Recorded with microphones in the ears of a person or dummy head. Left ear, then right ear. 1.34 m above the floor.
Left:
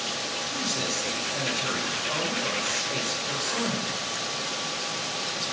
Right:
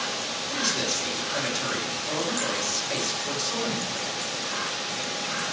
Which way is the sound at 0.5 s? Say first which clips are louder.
Right 4 dB; 80° right.